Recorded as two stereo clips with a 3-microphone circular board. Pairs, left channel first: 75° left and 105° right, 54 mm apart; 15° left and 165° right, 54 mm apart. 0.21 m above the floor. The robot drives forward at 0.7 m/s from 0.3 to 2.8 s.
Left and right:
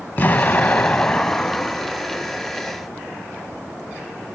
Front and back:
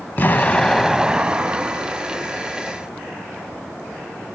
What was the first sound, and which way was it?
An explosion, 45° left.